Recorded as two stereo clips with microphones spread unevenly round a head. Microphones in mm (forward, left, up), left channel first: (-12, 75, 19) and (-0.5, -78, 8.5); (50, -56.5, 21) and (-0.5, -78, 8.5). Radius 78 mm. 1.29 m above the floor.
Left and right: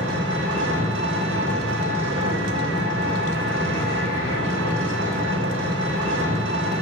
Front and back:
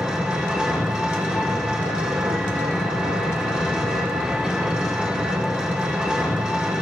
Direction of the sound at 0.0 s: 80° right.